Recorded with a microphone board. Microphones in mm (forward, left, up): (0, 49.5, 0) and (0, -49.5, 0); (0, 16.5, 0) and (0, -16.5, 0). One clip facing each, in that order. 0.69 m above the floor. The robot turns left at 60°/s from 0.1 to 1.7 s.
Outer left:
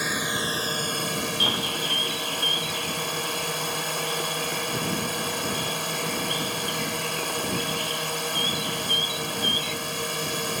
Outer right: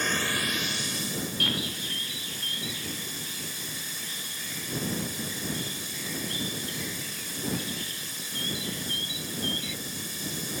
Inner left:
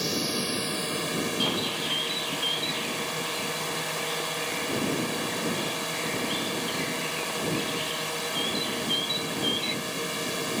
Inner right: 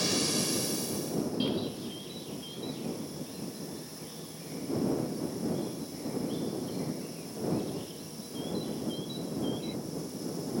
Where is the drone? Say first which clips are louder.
Outer left 2 dB, inner left 1 dB; 170° left; by 10.6 s 75° left.